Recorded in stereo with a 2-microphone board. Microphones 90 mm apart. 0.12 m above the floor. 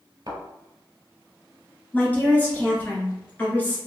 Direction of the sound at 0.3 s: 45° right (ahead or behind).